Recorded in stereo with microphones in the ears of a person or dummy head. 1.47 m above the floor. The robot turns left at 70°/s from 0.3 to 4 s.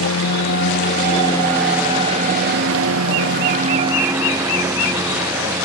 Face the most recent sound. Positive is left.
turn(degrees=-165)